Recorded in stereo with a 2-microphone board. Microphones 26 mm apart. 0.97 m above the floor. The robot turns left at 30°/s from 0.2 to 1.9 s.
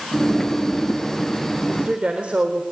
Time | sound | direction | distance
1.7 | a woman speaking | 50° right (ahead or behind) | 3.5 m